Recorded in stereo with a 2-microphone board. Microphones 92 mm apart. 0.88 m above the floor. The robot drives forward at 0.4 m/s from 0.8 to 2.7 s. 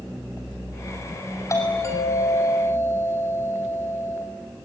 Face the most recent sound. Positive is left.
turn(degrees=30)  # may be behind; listen again after turning